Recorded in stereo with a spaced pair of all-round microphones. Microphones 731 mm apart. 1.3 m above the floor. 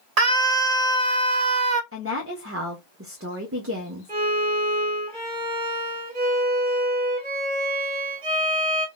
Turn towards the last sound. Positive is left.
turn(degrees=-10)  # may be behind; listen again after turning